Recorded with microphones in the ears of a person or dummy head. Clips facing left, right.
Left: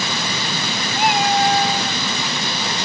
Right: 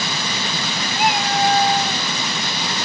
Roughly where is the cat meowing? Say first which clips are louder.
Left 2 dB; left.